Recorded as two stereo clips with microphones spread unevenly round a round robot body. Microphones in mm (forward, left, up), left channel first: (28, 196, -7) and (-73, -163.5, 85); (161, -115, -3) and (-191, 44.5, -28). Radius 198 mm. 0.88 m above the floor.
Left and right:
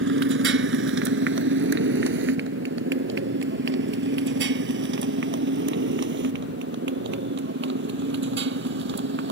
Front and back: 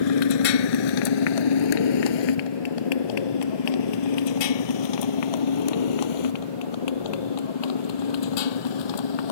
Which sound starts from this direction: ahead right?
A motorcycle, at 0.0 s.